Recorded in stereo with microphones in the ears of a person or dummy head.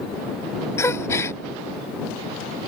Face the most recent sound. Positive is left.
turn(degrees=15)  # may be behind; listen again after turning